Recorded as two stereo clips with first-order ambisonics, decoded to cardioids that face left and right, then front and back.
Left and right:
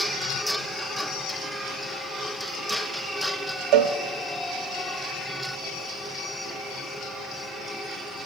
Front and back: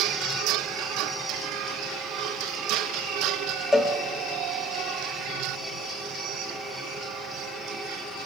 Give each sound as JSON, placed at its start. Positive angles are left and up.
{"t": 3.7, "sound": "a cowbell", "azimuth_deg": -80, "distance_m": 0.7}